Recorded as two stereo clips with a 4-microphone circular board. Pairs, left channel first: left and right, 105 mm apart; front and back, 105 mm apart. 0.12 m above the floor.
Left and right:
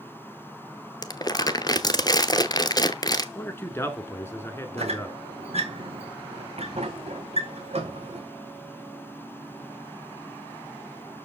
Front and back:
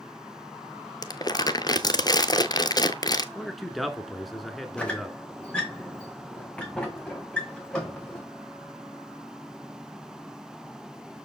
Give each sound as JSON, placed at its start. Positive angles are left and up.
{"t": 1.0, "sound": "crumpling", "azimuth_deg": 45, "distance_m": 0.7}
{"t": 3.4, "sound": "a man speaking", "azimuth_deg": 90, "distance_m": 1.2}
{"t": 4.8, "sound": "a squeak", "azimuth_deg": -80, "distance_m": 1.7}